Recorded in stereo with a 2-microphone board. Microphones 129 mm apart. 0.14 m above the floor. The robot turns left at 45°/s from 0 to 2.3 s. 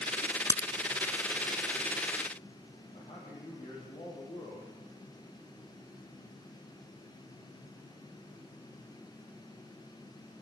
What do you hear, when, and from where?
0.5 s a crack: 25° left (ahead or behind), 0.7 m
2.9 s a man speaking: 50° left (ahead or behind), 7 m